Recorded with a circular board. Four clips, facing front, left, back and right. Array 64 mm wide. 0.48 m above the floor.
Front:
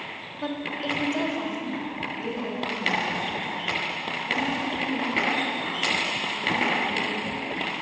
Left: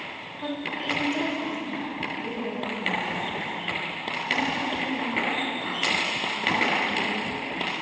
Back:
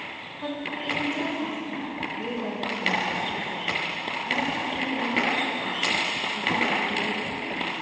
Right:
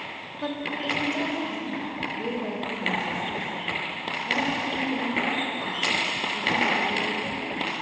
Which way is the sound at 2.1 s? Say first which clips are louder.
Right 1 dB, even; 110° right.